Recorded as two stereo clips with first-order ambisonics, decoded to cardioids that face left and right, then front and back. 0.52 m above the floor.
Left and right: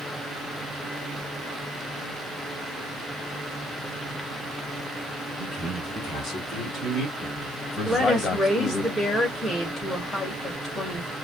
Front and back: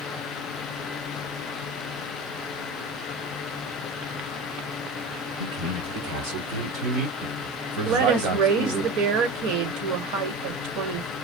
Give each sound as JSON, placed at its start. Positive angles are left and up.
{"t": 5.4, "sound": "a man speaking", "azimuth_deg": -175, "distance_m": 4.5}
{"t": 7.8, "sound": "a woman speaking", "azimuth_deg": 180, "distance_m": 1.6}